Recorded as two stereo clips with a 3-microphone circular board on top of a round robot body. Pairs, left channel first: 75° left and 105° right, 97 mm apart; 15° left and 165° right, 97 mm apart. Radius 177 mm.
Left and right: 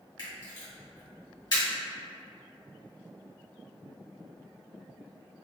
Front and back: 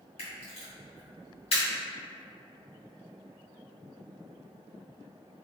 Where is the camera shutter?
25° left, 1.7 m.